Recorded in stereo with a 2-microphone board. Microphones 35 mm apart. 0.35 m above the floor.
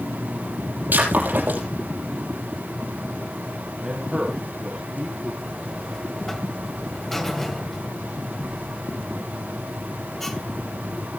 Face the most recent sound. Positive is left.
turn(degrees=10)  # may be behind; listen again after turning